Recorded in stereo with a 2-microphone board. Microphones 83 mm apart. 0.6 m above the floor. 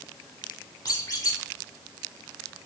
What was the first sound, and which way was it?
A squeak, 55° left (ahead or behind).